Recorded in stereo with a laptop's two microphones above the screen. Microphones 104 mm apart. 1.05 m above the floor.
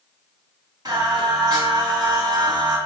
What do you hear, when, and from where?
0.8 s singing: 40° right (ahead or behind), 1.6 m